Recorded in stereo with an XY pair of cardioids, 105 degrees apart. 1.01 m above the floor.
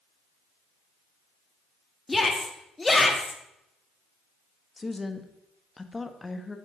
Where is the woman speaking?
20° left, 1.0 m.